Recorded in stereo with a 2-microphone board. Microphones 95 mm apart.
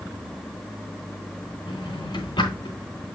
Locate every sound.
1.7 s a drawer: 50° left (ahead or behind), 3 m